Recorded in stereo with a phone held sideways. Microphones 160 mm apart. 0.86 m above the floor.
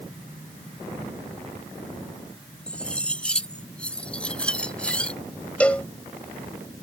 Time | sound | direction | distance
2.7 | cutlery clinking | 5° left (ahead or behind) | ?
5.6 | a cowbell | 10° left (ahead or behind) | ?